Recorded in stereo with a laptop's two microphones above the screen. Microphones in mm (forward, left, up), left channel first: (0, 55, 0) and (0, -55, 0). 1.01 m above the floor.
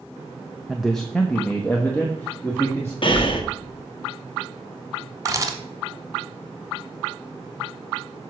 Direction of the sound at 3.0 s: 50° left (ahead or behind).